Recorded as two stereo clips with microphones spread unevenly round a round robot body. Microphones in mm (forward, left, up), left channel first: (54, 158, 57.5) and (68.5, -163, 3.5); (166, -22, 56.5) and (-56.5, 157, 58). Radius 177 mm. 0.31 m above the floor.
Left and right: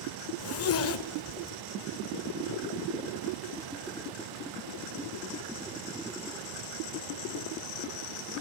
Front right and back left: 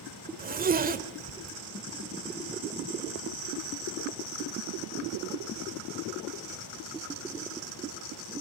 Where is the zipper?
110° left, 1.5 m.